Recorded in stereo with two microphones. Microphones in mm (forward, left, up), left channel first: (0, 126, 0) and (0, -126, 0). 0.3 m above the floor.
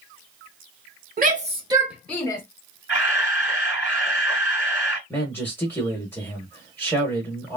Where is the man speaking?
10° left (ahead or behind), 0.9 m.